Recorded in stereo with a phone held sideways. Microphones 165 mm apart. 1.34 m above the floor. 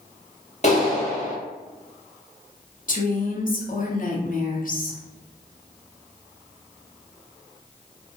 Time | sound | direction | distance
0.6 | a clap | 45° left (ahead or behind) | 1.3 m
2.9 | a woman speaking | 55° left (ahead or behind) | 0.6 m